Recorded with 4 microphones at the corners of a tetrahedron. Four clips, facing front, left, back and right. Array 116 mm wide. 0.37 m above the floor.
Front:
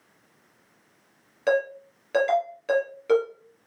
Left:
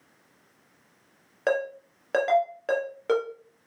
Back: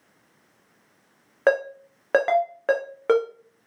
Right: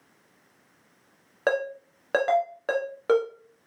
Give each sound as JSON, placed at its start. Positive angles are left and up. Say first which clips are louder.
{"t": 1.5, "sound": "a ringtone", "louder": "even, back 2 dB", "azimuth_deg": -165, "distance_m": 3.0}